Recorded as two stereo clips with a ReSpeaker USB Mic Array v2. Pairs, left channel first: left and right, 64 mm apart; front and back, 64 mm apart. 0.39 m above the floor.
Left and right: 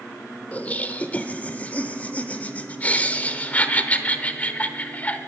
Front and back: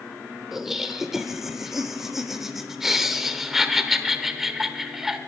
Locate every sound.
0.5 s laughter: 100° left, 0.8 m